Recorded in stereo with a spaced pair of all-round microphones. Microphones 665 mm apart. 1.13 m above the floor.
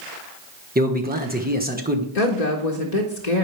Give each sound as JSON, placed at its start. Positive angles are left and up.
{"t": 0.8, "sound": "a man speaking", "side_deg": -15, "distance_m": 1.0}
{"t": 2.1, "sound": "a woman speaking", "side_deg": 75, "distance_m": 1.1}